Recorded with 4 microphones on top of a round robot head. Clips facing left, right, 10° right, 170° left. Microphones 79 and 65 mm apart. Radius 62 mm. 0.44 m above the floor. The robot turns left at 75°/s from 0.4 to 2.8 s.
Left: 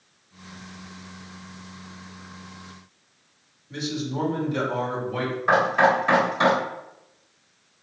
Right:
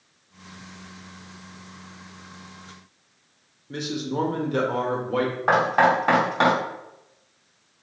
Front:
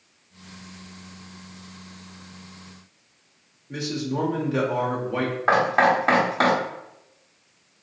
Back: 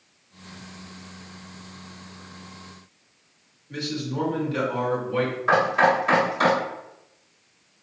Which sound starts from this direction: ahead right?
Knocking, at 5.5 s.